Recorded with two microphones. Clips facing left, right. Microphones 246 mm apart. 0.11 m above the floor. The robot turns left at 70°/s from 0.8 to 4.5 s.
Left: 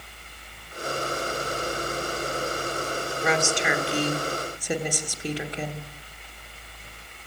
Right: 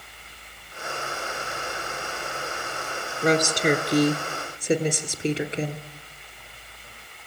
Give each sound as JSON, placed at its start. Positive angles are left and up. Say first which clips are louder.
{"t": 3.2, "sound": "a woman speaking", "louder": "right 5 dB", "azimuth_deg": -55, "distance_m": 2.0}